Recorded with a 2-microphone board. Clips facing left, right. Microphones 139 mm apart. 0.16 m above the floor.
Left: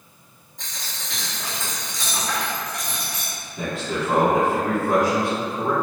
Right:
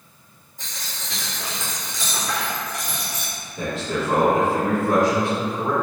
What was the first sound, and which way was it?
A dropped coin, centre (ahead or behind).